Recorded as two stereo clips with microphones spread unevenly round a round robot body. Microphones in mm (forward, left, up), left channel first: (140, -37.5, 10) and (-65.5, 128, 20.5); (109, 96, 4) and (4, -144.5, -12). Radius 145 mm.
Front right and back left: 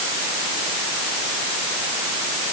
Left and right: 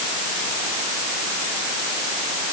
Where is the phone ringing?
No phone ringing in this recording.